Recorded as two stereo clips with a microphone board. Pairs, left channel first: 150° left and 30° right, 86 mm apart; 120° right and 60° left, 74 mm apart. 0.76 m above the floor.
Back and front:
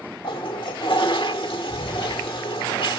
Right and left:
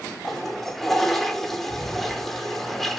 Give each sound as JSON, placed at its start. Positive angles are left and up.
{"t": 0.2, "sound": "a toilet flushing", "azimuth_deg": 155, "distance_m": 1.5}